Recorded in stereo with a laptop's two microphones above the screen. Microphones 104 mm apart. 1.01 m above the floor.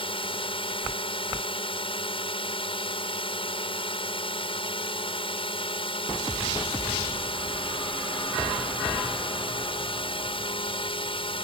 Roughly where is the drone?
Left.